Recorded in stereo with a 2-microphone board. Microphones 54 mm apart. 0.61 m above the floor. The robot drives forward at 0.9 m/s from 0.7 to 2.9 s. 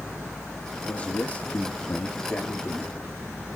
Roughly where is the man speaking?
Left.